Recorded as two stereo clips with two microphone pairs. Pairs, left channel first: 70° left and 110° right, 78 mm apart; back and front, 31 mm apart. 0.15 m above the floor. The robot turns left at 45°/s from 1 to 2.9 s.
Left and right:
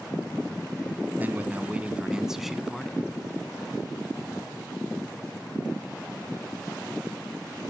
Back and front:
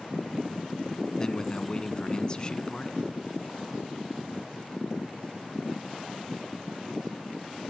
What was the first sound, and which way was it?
A man speaking, 130° right.